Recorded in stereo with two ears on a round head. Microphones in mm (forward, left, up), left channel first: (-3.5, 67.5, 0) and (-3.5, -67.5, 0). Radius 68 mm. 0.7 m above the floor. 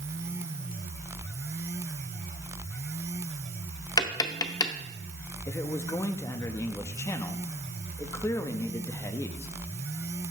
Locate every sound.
4.0 s tapping: 25° left (ahead or behind), 0.7 m
5.5 s a man speaking: 20° left (ahead or behind), 0.6 m